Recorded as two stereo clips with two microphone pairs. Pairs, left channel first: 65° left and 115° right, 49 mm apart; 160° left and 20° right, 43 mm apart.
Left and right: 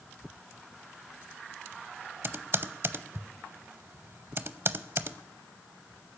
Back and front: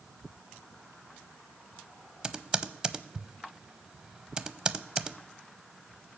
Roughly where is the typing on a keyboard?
Right.